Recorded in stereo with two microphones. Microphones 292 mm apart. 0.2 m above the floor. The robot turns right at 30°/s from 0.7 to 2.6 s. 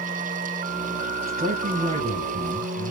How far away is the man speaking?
About 1.7 m.